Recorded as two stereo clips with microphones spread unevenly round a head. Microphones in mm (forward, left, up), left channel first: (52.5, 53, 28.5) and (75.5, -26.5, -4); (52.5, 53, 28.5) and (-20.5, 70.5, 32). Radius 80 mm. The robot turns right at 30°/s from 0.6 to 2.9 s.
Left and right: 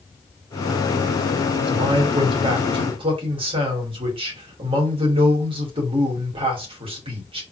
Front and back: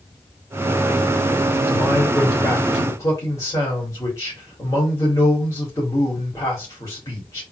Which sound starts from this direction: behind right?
A man speaking, at 1.7 s.